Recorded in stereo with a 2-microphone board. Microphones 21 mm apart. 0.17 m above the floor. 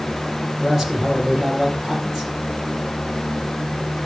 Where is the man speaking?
20° right (ahead or behind), 6 m.